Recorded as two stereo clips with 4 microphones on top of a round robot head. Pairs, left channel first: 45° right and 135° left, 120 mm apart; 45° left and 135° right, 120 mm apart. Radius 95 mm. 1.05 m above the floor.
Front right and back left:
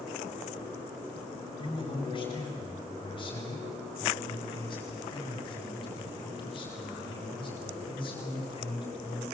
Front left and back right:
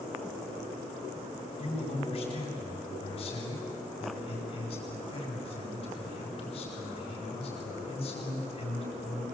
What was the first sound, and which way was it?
A man speaking, straight ahead.